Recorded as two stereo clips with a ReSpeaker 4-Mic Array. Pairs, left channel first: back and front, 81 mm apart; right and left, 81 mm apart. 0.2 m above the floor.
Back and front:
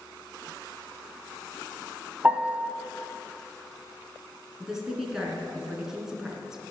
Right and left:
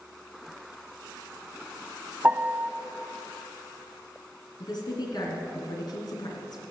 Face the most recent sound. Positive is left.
turn(degrees=-85)